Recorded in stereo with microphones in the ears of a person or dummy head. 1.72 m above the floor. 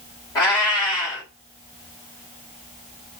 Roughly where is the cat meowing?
Centre.